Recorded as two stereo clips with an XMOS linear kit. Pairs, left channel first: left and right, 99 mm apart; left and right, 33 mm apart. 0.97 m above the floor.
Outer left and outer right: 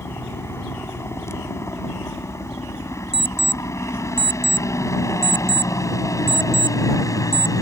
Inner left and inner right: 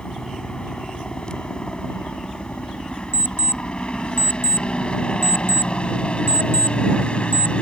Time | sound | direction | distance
0.0 | a helicopter | 25° left (ahead or behind) | ?
3.1 | an alarm clock | 85° left | ?